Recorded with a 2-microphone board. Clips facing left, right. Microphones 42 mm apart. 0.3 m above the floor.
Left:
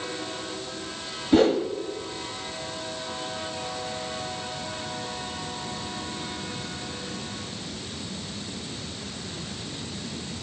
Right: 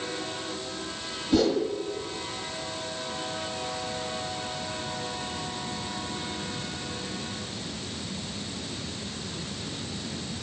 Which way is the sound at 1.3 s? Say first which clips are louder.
Left 4 dB; 35° left (ahead or behind).